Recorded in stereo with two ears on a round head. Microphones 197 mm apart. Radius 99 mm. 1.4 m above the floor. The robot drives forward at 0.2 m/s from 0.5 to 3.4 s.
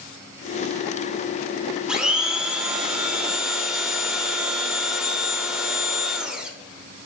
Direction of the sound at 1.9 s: 5° right (ahead or behind).